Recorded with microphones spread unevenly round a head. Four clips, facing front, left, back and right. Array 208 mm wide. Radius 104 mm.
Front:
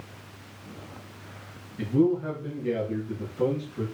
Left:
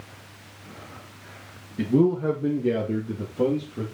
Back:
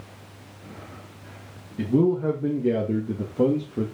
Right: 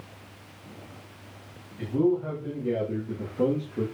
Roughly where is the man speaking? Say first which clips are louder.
Left 4 dB, back 2 dB; behind left.